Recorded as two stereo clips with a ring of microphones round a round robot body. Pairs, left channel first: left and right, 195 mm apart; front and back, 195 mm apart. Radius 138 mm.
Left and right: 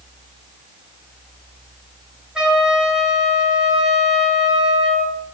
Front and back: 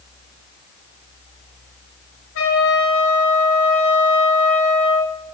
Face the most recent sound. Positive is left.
turn(degrees=-5)